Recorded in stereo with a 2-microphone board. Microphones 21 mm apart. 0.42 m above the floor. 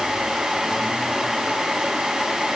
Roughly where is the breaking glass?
No breaking glass in this recording.